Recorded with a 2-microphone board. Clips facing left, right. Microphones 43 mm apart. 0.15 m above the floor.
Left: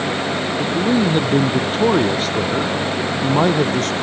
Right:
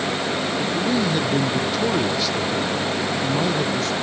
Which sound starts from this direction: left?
A man speaking, at 0.6 s.